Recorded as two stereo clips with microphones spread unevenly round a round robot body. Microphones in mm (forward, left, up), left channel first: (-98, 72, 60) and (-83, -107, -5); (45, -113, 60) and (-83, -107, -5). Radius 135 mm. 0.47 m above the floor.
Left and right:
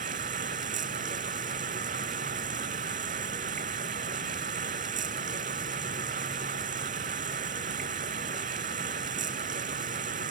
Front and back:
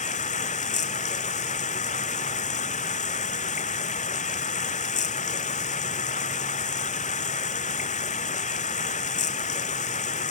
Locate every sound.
0.0 s running water: 25° right